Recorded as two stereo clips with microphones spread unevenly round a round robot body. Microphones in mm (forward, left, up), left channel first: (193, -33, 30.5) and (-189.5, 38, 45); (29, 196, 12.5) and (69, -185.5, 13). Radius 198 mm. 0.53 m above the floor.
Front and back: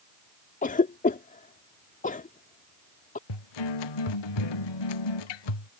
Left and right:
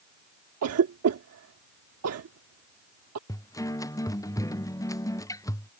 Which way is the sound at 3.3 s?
15° left.